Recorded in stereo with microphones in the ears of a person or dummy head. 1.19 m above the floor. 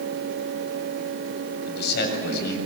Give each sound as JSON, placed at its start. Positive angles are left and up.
{"t": 1.7, "sound": "a man speaking", "side_deg": 55, "distance_m": 7.0}